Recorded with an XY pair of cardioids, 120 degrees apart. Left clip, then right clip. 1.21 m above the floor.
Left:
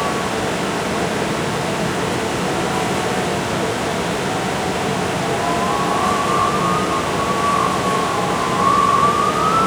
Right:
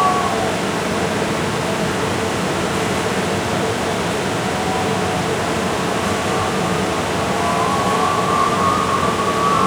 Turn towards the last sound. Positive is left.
turn(degrees=0)